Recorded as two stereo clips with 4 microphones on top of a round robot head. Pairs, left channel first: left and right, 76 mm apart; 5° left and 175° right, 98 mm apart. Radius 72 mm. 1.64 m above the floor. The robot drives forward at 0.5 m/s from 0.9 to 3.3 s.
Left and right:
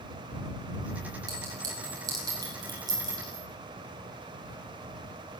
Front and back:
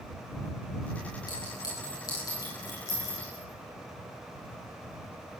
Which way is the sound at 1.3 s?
55° right.